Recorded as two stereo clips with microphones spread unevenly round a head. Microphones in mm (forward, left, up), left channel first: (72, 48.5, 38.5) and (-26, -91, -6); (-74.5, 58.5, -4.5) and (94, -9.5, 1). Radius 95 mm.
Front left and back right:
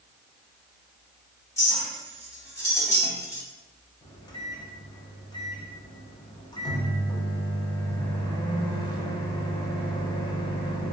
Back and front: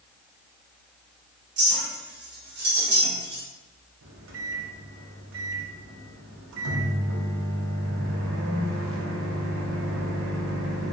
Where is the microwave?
10° right, 0.6 m.